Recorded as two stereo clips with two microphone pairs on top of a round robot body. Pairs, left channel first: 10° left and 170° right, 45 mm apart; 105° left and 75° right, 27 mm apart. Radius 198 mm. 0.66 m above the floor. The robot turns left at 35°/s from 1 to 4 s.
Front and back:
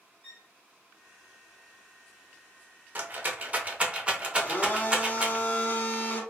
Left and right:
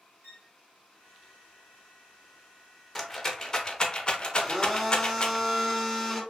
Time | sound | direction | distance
0.2 | a violin | 40° right | 1.6 m
3.0 | a rattle | 175° left | 1.0 m
4.4 | a blender | 40° left | 1.3 m